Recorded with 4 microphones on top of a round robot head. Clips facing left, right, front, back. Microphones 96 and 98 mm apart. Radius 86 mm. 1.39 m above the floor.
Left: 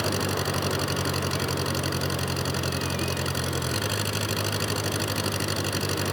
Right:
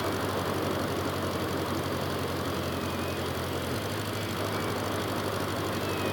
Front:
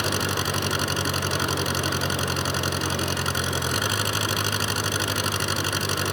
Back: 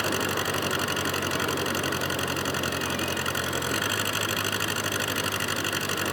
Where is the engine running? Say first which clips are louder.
Left 2 dB, front 1 dB; 65° left.